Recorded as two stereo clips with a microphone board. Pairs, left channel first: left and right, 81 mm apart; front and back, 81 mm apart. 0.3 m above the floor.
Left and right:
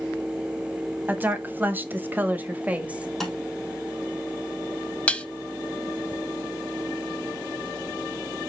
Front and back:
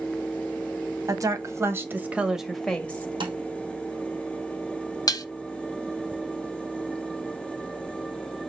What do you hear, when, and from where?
1.1 s a woman speaking: 150° right, 1.9 m; by 3.1 s 30° right, 1.3 m
3.2 s tapping: 175° left, 2.5 m
5.1 s dishes clattering: 20° left, 0.9 m